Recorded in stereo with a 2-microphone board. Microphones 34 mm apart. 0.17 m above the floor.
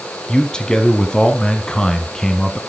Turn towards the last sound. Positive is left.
turn(degrees=25)  # may be behind; listen again after turning